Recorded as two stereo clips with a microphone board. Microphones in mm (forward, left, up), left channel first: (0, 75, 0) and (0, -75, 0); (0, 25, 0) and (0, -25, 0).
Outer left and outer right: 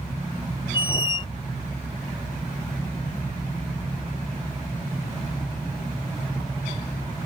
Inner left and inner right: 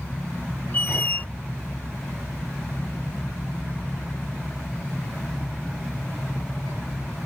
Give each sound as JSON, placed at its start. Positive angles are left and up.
{"t": 0.7, "sound": "a squeak", "side_deg": 35}